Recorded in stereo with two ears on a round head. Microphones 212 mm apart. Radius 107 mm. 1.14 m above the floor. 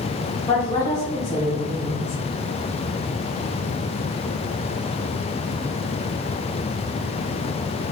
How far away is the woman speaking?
About 3.5 m.